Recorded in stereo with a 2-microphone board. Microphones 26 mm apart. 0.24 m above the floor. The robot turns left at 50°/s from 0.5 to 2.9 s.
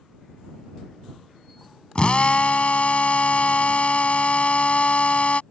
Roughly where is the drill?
Behind left.